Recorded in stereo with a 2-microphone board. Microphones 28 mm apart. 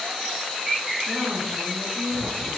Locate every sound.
1.1 s a woman speaking: 70° right (ahead or behind), 5 m; by 2.6 s 80° right, 6 m